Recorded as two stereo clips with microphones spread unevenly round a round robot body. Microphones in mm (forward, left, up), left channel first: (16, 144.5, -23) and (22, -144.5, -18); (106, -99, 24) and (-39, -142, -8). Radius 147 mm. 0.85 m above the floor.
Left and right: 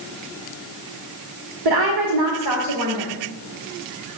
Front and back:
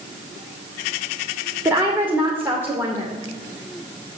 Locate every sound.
1.6 s a woman speaking: 85° right, 2.5 m